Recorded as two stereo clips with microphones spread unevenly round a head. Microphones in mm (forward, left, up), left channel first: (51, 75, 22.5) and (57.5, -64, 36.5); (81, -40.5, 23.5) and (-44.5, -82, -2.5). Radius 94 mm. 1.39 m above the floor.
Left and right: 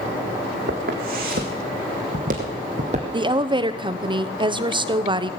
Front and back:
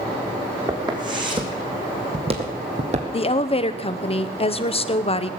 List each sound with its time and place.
0.7 s footsteps: 100° right, 3.5 m; by 3.0 s 130° right, 2.5 m
3.1 s a woman speaking: 30° right, 0.8 m